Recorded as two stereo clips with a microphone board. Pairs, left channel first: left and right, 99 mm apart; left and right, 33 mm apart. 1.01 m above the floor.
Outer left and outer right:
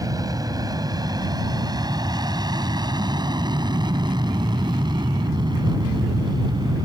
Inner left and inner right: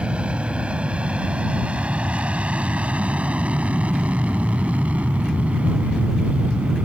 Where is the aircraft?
40° right (ahead or behind); by 6.9 s 50° right (ahead or behind).